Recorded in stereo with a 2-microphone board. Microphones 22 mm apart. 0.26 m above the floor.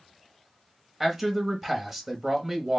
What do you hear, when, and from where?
1.0 s a man speaking: 15° right (ahead or behind), 0.9 m